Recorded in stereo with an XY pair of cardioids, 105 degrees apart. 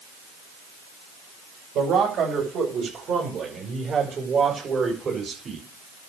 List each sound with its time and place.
1.8 s a man speaking: 65° right, 7 m; by 5.6 s 40° right, 4.5 m